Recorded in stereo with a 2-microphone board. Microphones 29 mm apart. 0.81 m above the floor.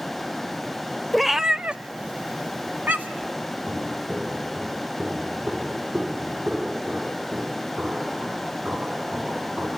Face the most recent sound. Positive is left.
turn(degrees=-65)  # may be behind; listen again after turning